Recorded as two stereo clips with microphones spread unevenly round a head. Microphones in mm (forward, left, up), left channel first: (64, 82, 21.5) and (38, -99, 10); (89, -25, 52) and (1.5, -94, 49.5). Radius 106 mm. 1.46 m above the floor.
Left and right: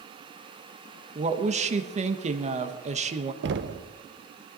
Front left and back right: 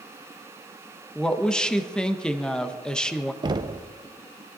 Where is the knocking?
100° right, 0.7 m.